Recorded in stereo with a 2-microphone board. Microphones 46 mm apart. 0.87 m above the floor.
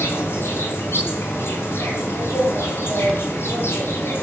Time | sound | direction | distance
0.0 | an insect | 50° left (ahead or behind) | 5.5 m